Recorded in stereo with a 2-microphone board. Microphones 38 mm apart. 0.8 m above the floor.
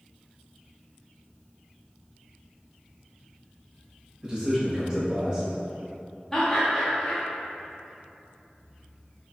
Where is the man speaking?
25° right (ahead or behind), 1.0 m.